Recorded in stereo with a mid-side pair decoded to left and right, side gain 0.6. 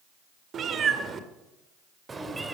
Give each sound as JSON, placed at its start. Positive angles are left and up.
{"t": 0.5, "sound": "a cat meowing", "azimuth_deg": -45, "distance_m": 1.9}